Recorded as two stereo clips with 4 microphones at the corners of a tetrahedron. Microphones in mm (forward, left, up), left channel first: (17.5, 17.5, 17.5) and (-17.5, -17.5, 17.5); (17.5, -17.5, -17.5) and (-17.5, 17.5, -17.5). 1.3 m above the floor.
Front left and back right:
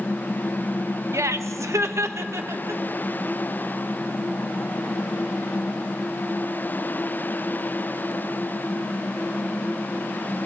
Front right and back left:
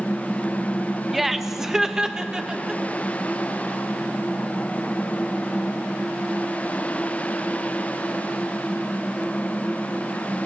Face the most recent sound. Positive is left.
turn(degrees=-150)